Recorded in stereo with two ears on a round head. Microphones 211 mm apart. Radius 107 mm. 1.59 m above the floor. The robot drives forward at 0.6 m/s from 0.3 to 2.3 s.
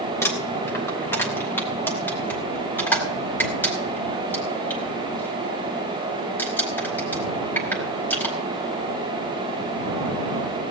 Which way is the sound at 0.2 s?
10° left (ahead or behind).